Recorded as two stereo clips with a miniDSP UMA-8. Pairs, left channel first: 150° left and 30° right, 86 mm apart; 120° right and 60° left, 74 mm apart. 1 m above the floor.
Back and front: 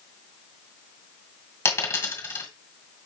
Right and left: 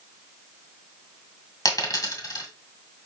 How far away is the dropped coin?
About 1.8 m.